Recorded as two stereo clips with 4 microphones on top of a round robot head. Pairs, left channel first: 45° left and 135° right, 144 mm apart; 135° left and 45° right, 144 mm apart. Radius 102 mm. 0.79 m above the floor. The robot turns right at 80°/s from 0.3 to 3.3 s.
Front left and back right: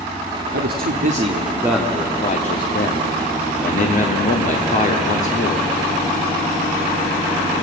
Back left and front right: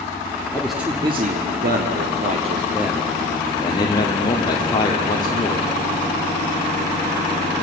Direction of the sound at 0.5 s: 145° right.